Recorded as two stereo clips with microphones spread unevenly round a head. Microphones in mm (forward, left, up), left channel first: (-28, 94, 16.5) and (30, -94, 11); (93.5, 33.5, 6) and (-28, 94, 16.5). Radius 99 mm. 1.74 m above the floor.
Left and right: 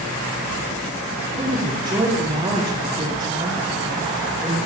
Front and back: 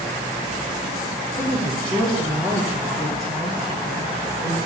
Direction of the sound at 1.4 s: 140° right.